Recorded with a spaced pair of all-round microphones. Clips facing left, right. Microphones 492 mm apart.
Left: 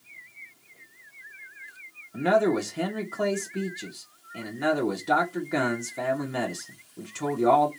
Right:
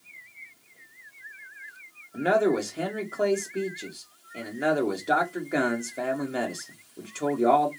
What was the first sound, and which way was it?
A man speaking, 20° left (ahead or behind).